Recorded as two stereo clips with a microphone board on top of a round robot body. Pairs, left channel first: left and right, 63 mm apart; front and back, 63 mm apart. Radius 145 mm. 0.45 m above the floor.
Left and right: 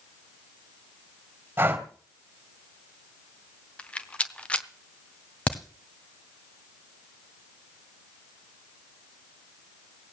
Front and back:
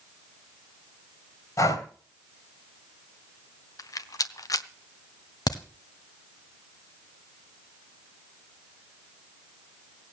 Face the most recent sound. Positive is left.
turn(degrees=20)